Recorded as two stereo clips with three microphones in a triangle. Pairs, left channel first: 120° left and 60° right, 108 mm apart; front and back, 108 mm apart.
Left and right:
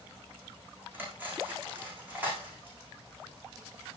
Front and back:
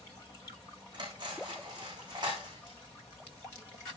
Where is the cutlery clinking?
135° right, 10 m.